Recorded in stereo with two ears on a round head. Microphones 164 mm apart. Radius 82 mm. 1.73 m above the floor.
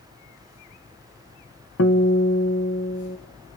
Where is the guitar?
85° left, 1.7 m.